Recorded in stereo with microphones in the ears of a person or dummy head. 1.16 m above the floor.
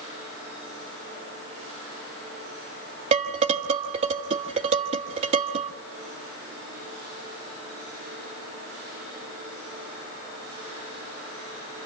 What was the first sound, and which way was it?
Dishes clattering, 35° right (ahead or behind).